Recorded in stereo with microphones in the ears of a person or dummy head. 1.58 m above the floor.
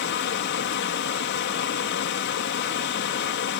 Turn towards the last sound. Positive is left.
turn(degrees=55)  # may be behind; listen again after turning